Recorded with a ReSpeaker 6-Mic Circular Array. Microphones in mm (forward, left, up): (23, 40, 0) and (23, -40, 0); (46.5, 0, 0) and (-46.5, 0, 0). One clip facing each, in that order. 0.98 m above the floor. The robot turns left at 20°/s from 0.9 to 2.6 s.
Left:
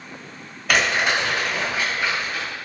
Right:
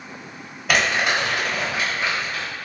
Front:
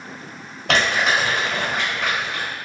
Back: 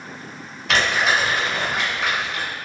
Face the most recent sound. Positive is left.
turn(degrees=-40)